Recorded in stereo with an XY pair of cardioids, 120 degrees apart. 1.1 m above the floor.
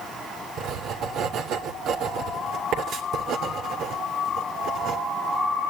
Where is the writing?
65° right, 3 m.